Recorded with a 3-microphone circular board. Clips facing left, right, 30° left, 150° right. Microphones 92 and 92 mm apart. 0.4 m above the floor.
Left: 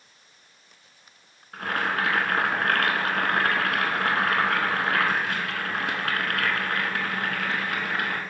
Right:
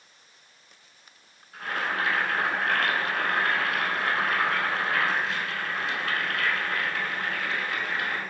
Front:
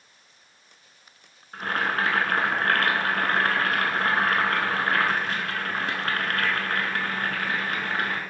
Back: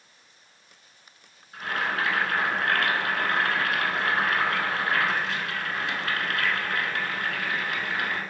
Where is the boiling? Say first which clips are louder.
Left 3 dB, front 2 dB; 70° left, 0.7 m.